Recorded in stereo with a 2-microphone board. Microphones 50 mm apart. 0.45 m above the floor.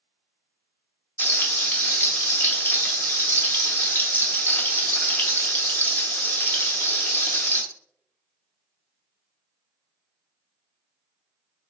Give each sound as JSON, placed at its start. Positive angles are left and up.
{"t": 1.2, "sound": "frying", "side_deg": 40, "distance_m": 0.8}